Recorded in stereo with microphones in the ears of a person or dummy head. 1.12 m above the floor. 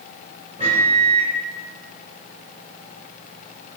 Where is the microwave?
35° right (ahead or behind), 2.5 m.